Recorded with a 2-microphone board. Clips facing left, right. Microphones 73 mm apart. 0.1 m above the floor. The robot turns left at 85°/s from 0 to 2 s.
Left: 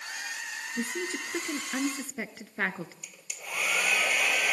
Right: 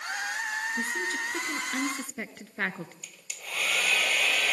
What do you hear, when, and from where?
0.8 s a woman speaking: 20° left (ahead or behind), 1.1 m; by 2.9 s 5° left (ahead or behind), 1.1 m
3.0 s a hair dryer: 15° left (ahead or behind), 0.8 m